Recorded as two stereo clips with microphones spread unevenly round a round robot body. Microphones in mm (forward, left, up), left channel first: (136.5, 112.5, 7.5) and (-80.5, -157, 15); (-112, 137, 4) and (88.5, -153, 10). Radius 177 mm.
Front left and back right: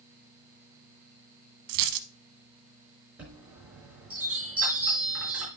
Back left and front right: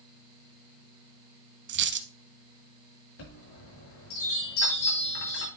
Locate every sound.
1.7 s a dropped coin: 115° right, 0.9 m
3.2 s a chime: 145° left, 5 m